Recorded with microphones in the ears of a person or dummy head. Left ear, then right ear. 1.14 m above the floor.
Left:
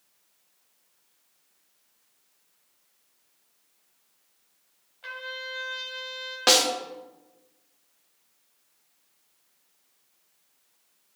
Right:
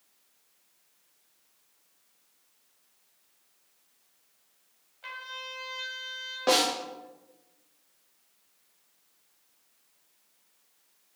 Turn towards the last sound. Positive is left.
turn(degrees=55)  # may be behind; listen again after turning